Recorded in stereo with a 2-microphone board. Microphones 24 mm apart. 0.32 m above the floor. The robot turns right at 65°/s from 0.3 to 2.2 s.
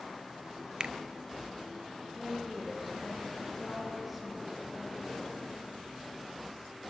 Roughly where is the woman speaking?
Centre.